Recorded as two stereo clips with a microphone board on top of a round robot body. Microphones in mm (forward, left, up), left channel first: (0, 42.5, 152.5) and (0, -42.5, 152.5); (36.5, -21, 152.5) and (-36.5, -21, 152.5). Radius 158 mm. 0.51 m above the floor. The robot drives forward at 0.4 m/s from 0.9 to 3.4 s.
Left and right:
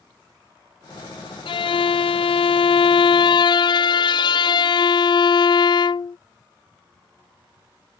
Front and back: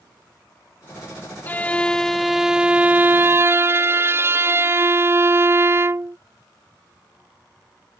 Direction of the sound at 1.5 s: 65° left.